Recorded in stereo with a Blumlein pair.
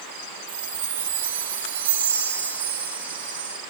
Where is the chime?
60° right, 1.8 m.